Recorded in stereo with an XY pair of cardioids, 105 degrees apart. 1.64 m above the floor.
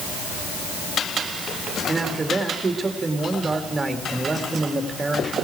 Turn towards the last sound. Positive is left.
turn(degrees=-25)